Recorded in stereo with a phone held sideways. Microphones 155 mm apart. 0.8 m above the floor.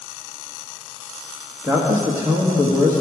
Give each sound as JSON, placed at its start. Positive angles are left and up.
{"t": 1.6, "sound": "a man speaking", "side_deg": -20, "distance_m": 1.4}